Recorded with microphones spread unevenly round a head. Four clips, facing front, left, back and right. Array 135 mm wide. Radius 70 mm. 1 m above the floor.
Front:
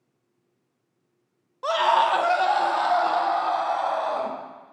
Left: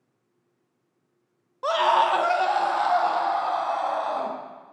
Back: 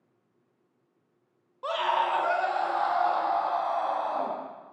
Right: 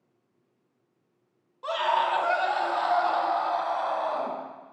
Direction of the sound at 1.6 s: 85° left.